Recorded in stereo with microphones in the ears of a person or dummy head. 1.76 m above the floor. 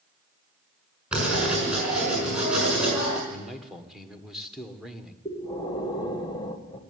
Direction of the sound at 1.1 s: 10° right (ahead or behind).